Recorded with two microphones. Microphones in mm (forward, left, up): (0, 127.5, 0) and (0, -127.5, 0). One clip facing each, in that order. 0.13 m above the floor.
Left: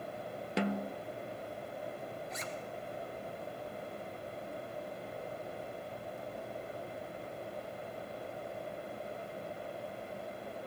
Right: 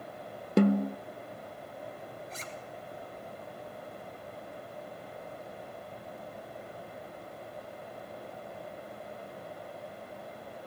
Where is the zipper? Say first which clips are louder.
Left 2 dB; 35° right (ahead or behind), 2 m.